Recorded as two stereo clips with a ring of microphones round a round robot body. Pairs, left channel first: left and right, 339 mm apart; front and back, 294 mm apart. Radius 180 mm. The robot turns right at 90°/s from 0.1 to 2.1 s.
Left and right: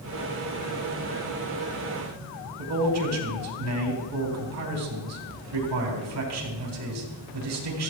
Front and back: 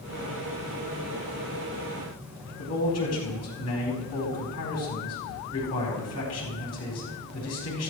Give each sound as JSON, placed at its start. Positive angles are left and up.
{"t": 2.6, "sound": "a man speaking", "azimuth_deg": -45, "distance_m": 4.5}